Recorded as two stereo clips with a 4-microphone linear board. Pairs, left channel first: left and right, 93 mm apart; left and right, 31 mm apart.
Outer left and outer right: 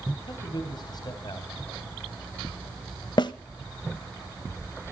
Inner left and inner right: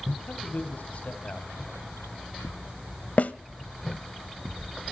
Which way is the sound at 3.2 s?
55° left (ahead or behind).